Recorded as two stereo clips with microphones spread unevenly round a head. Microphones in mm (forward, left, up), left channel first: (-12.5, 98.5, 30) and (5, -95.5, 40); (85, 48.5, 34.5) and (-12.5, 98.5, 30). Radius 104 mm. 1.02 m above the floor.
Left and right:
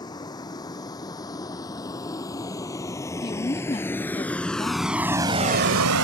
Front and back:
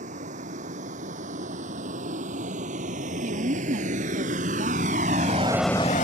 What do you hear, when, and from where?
0.0 s a vehicle: 165° left; by 6.0 s 70° right
3.2 s a woman speaking: 165° left